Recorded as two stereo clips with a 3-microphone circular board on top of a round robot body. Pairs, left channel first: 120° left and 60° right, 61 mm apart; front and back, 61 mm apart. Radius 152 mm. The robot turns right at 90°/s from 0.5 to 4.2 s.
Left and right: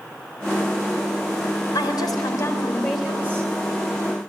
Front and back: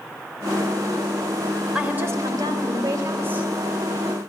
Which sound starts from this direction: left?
A woman speaking, at 1.8 s.